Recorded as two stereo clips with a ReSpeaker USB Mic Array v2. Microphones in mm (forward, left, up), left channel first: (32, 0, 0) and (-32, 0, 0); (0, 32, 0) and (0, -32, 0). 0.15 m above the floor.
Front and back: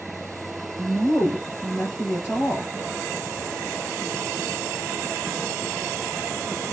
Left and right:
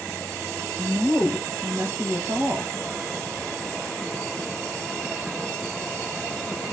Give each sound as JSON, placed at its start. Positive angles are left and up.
{"t": 0.8, "sound": "a woman speaking", "azimuth_deg": -65, "distance_m": 3.0}